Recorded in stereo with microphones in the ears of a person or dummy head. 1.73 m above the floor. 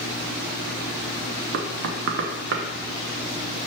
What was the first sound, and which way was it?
Knocking, 65° right (ahead or behind).